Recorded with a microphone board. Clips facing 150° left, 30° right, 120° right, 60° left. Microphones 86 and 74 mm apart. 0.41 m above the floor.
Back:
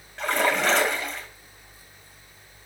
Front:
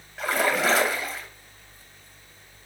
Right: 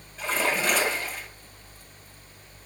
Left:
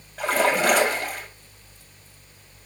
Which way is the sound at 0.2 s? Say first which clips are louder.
Even, left 6 dB; 55° left.